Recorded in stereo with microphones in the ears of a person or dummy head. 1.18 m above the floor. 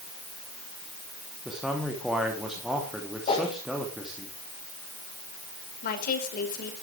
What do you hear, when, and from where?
1.4 s a man speaking: 5° right (ahead or behind), 2.5 m
3.3 s a whoosh: 35° left (ahead or behind), 4 m
5.8 s a woman speaking: 55° left (ahead or behind), 4.5 m